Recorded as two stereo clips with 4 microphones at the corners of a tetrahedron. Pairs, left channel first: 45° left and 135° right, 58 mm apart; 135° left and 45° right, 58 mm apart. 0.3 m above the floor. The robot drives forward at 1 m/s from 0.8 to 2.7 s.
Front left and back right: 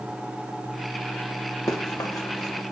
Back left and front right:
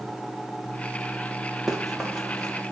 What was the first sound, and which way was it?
Running footsteps, 40° left.